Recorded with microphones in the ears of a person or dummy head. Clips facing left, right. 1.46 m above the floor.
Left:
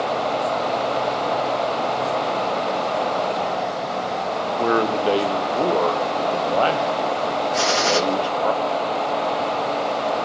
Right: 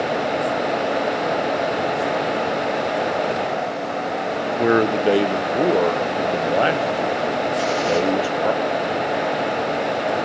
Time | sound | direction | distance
4.6 | a man speaking | 15° right (ahead or behind) | 0.7 m
7.5 | a gunshot | 75° left (ahead or behind) | 1.6 m